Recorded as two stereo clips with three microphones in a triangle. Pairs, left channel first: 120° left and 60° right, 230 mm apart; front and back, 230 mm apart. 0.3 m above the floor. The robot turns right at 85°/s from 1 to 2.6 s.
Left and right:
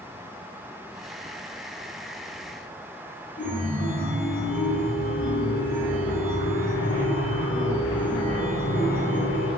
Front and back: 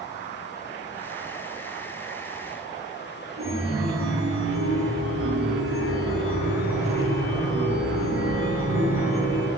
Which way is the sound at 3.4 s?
170° left.